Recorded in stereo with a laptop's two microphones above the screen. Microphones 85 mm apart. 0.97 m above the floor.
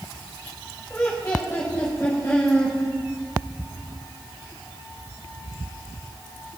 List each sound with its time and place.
0.9 s laughter: 20° left (ahead or behind), 5 m